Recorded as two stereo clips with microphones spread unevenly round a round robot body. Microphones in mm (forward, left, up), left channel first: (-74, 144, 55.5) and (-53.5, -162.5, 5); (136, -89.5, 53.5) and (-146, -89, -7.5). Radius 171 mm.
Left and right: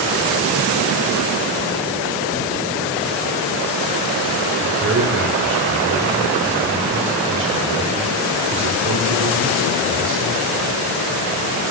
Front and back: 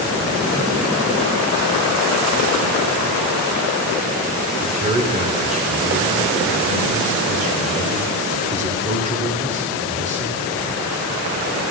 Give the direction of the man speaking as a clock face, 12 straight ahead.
4 o'clock.